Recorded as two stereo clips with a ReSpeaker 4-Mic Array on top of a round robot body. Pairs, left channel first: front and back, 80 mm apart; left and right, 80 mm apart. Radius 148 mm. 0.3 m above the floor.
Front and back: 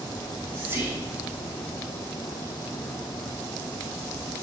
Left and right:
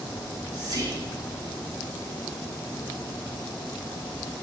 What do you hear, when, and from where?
0.2 s whispering: 120° right, 3.5 m